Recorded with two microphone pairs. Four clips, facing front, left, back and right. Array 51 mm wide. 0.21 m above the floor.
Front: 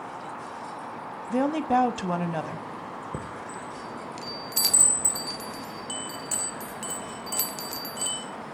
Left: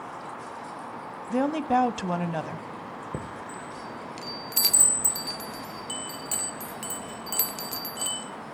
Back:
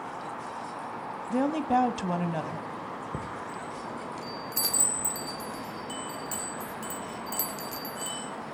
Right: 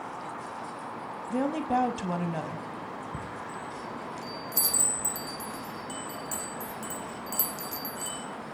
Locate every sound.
1.3 s a woman speaking: 65° left, 1.0 m
3.1 s a chime: 65° left, 1.3 m